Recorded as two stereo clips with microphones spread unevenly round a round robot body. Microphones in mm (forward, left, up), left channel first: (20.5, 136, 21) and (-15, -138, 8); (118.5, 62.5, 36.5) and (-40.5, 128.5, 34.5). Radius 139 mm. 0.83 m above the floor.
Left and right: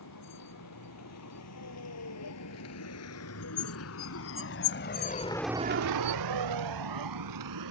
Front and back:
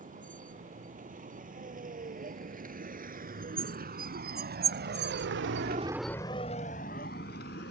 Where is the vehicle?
115° left; by 7.7 s 75° right.